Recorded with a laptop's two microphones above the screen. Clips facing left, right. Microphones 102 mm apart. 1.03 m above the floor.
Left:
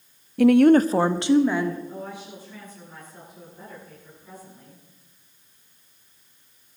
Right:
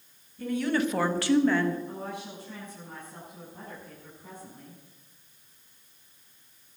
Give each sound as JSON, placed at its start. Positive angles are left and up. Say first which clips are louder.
{"t": 0.4, "sound": "a woman speaking", "louder": "left 13 dB", "side_deg": 75, "distance_m": 0.5}
{"t": 1.9, "sound": "a woman speaking", "louder": "left 1 dB", "side_deg": -60, "distance_m": 9.0}